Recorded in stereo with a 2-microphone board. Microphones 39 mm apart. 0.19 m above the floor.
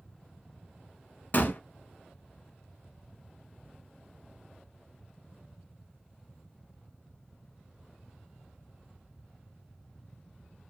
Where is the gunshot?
50° left (ahead or behind), 0.7 m.